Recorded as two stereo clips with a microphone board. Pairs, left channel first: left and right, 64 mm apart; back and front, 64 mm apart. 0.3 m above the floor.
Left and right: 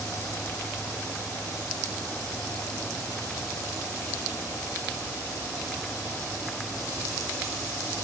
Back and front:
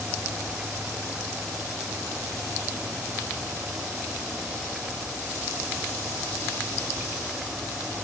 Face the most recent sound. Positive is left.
No sound to turn to.